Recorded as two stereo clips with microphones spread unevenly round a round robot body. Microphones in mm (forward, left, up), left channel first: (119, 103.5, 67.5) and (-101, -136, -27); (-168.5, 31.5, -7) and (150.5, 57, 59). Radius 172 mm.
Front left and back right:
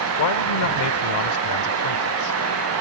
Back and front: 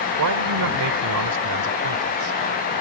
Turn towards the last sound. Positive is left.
turn(degrees=35)